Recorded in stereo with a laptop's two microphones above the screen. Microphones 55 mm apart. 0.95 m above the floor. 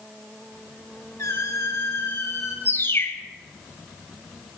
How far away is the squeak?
About 3 m.